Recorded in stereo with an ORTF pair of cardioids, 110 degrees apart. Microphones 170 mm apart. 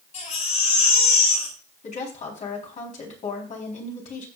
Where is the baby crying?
45° left, 8 m.